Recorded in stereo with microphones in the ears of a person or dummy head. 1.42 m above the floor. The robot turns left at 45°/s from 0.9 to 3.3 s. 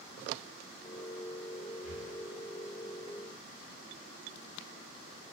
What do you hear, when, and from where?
1.8 s breathing: 65° right (ahead or behind), 3 m; by 2.1 s 75° right (ahead or behind), 3 m